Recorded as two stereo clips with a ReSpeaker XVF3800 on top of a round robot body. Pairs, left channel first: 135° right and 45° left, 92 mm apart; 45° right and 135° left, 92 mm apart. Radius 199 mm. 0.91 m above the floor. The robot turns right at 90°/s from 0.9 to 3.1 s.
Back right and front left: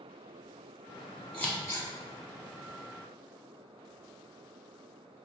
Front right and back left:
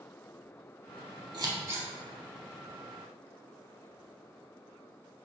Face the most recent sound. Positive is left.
turn(degrees=-55)